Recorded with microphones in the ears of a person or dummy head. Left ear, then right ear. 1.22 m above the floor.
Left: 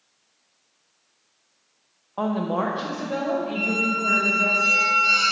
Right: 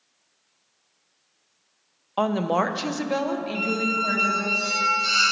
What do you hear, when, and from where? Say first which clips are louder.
2.2 s a woman speaking: right 3 dB; 65° right (ahead or behind), 0.5 m; by 4.5 s 40° right (ahead or behind), 1.8 m
3.5 s a squeak: right 1 dB; 40° right (ahead or behind), 1.0 m